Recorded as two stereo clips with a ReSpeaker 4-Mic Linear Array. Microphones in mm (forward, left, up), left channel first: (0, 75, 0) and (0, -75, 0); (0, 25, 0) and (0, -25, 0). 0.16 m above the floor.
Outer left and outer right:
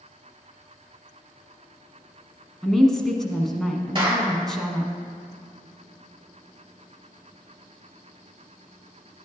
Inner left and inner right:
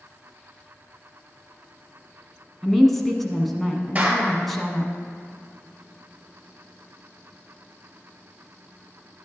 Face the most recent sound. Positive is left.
turn(degrees=-35)  # may be behind; listen again after turning